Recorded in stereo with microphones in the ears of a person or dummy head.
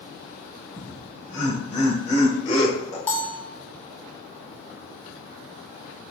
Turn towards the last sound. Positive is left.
turn(degrees=5)  # may be behind; listen again after turning